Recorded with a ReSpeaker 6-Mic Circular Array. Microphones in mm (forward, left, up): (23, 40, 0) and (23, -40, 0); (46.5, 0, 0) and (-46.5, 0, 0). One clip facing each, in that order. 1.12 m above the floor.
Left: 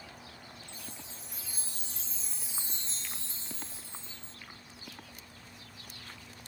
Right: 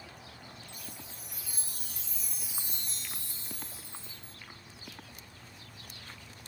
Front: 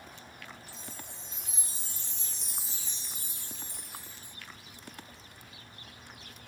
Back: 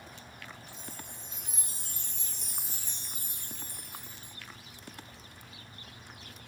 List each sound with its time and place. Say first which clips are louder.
0.7 s a chime: even, back 1 dB; 150° left, 0.6 m